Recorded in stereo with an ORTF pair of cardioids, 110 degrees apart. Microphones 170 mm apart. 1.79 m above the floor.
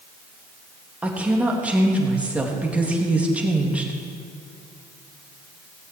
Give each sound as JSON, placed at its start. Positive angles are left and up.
{"t": 1.0, "sound": "a woman speaking", "azimuth_deg": -10, "distance_m": 3.0}